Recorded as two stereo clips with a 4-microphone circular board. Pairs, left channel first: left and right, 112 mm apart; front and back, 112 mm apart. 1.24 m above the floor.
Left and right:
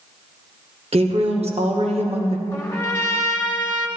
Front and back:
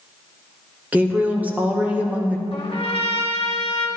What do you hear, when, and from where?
0.9 s a woman speaking: 105° right, 1.3 m
2.5 s a trumpet: 25° left, 1.4 m